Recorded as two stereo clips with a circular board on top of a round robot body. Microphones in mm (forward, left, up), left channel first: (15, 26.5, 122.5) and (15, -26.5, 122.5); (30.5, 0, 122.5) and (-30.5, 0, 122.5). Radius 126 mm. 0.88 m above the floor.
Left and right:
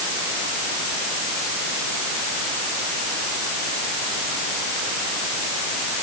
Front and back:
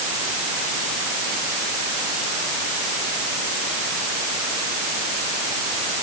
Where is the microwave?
I don't hear a microwave.